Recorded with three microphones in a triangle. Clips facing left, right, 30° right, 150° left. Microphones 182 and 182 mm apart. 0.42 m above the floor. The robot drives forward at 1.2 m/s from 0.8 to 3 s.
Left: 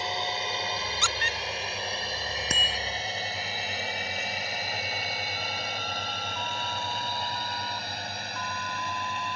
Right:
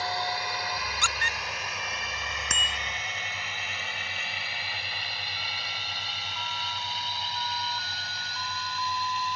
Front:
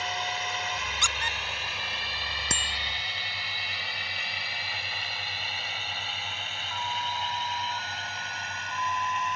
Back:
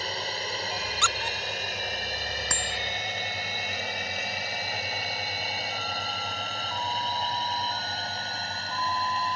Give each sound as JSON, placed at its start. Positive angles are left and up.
{"t": 0.0, "sound": "a drone", "azimuth_deg": 145}
{"t": 1.0, "sound": "a squeak", "azimuth_deg": -95}
{"t": 2.5, "sound": "a bicycle bell", "azimuth_deg": 35}